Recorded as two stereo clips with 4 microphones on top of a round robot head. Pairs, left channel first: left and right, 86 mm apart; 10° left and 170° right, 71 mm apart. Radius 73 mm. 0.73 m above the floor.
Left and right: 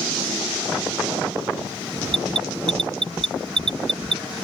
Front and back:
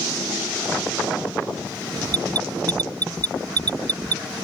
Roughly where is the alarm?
Behind right.